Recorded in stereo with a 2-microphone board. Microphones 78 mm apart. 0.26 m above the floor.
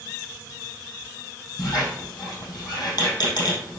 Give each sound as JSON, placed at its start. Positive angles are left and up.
{"t": 1.6, "sound": "a squeak", "side_deg": 60, "distance_m": 5.0}